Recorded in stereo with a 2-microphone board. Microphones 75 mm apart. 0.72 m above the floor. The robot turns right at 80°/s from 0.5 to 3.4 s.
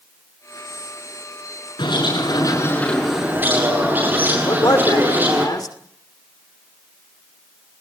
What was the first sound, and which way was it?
A bird, 75° left.